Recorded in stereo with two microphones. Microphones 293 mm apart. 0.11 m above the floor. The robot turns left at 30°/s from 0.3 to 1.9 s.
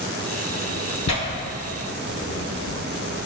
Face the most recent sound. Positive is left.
turn(degrees=45)  # may be behind; listen again after turning